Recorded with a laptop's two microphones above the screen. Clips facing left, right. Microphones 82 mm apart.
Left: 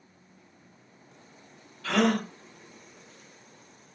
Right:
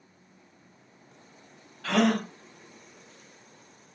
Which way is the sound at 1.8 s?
60° right (ahead or behind).